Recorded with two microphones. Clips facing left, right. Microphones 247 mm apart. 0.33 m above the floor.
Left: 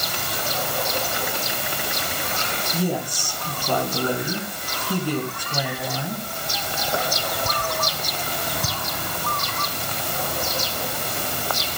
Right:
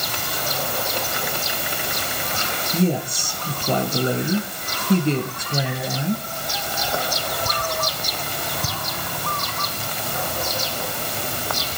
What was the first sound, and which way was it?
A woman speaking, 25° right (ahead or behind).